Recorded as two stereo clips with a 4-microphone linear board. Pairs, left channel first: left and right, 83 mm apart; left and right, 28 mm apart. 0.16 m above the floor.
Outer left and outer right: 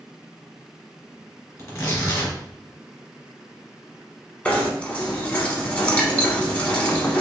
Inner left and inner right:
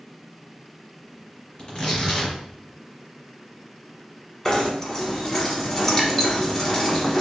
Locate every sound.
1.6 s tearing paper: 40° left (ahead or behind), 1.6 m
4.5 s knocking: 20° left (ahead or behind), 0.8 m